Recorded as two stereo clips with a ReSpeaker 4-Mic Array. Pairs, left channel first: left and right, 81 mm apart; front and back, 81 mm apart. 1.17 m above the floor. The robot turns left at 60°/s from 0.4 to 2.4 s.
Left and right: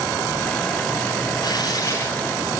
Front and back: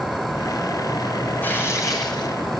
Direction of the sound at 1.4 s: 65° left.